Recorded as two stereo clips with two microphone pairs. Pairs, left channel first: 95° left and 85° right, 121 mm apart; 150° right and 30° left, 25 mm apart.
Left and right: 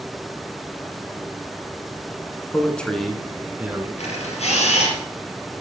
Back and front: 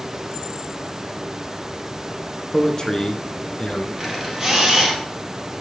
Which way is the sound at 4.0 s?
105° left.